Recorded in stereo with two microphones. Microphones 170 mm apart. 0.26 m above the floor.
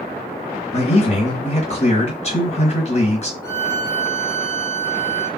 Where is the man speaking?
40° left (ahead or behind), 1.2 m.